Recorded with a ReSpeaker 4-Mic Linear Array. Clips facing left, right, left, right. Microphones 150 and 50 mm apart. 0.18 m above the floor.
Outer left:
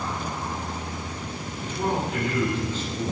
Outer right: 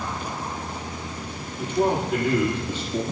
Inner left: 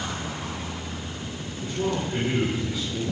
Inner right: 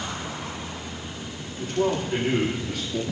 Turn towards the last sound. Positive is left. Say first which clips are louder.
# outer right 5 dB, inner right 3 dB
turn(degrees=-55)  # may be behind; listen again after turning